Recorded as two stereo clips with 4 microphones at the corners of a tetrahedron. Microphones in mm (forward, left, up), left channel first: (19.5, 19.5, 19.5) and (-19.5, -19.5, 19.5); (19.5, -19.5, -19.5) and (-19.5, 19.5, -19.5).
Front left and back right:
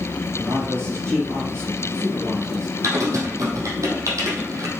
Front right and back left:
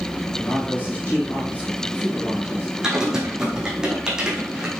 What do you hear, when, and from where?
0.3 s a man speaking: 105° right, 5 m
2.8 s typing on a keyboard: 150° right, 3 m